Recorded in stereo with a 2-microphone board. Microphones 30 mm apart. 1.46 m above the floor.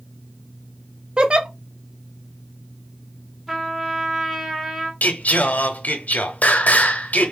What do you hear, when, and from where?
1.2 s a giggle: 30° right (ahead or behind), 0.5 m
3.5 s a trumpet: 10° right (ahead or behind), 0.8 m
5.0 s singing: 65° left (ahead or behind), 0.6 m